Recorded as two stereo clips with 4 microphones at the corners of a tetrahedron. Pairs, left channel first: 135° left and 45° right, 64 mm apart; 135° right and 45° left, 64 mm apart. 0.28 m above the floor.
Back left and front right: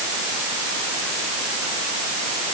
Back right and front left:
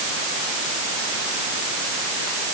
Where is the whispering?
No whispering in this recording.